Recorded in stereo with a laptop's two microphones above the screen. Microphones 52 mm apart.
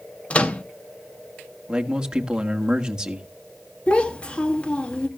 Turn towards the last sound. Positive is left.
turn(degrees=20)  # may be behind; listen again after turning